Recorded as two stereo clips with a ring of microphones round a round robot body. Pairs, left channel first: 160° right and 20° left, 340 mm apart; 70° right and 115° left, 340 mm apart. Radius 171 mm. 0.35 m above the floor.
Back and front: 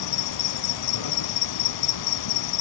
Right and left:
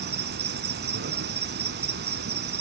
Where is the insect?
175° left, 0.8 m.